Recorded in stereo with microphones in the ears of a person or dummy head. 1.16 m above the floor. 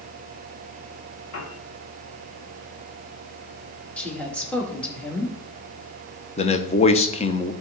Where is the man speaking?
30° left (ahead or behind), 0.8 m.